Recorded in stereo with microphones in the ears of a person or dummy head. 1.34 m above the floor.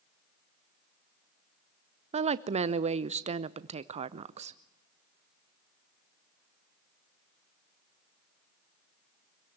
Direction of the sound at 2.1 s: 35° right (ahead or behind).